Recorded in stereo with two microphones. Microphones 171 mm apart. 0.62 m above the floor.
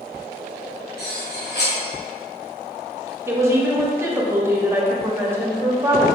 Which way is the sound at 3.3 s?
15° right (ahead or behind).